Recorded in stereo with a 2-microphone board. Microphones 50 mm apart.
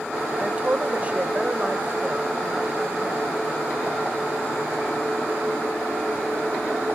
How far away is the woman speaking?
About 1.6 m.